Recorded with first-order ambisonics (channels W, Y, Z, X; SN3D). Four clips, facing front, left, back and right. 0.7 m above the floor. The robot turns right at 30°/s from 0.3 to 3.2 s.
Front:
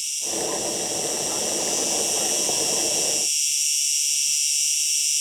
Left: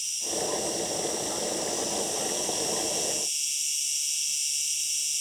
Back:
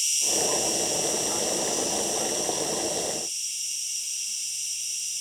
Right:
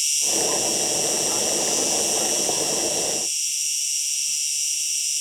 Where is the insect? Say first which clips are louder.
Right 8 dB, back 2 dB; 100° right, 0.8 m; by 5.2 s 15° right, 0.8 m.